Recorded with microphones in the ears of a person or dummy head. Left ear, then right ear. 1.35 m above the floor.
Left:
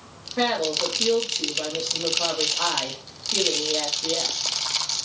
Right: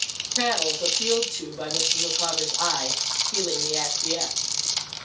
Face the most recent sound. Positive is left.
turn(degrees=15)  # may be behind; listen again after turning